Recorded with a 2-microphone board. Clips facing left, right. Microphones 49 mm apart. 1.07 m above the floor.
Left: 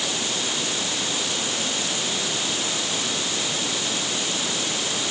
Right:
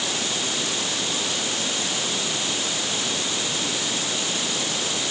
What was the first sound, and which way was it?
Only background noise.